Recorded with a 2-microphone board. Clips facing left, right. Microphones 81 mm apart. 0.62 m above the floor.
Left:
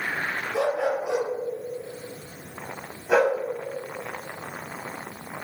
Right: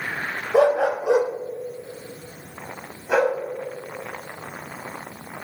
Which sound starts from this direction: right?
A dog barking, at 0.5 s.